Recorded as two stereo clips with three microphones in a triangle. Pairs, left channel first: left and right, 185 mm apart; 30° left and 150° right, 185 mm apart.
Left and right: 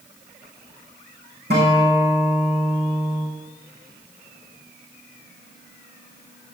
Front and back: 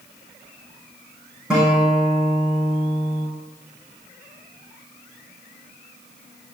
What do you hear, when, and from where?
1.5 s a guitar: 65° right, 6 m